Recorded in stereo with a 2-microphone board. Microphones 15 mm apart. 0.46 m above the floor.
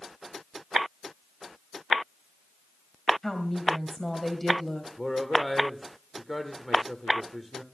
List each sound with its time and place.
3.2 s a woman speaking: 15° left (ahead or behind), 2 m
5.0 s a man speaking: 25° left (ahead or behind), 1.3 m